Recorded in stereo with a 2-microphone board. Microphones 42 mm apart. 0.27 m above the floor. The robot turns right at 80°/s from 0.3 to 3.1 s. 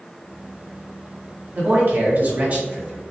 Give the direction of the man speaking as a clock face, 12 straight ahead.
4 o'clock.